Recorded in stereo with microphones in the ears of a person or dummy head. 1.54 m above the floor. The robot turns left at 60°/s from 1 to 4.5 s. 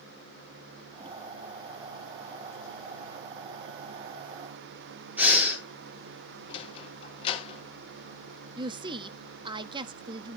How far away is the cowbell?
No cowbell in this recording.